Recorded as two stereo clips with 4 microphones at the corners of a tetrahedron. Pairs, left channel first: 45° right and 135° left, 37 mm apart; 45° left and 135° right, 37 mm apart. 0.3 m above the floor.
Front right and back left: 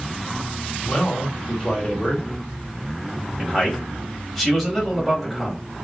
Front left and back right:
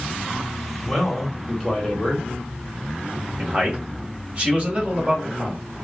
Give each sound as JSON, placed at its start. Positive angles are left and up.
{"t": 0.8, "sound": "a man speaking", "azimuth_deg": -40, "distance_m": 1.3}
{"t": 3.4, "sound": "a man speaking", "azimuth_deg": -130, "distance_m": 1.2}